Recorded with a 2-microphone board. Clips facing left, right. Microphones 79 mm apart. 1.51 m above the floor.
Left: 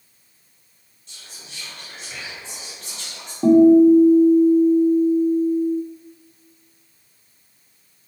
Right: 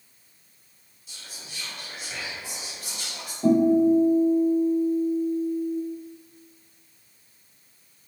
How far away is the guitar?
About 0.8 m.